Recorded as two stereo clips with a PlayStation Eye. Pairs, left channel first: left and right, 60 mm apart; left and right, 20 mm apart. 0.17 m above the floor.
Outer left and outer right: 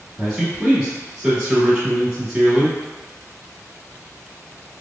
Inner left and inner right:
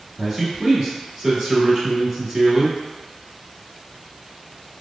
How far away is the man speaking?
About 1.4 m.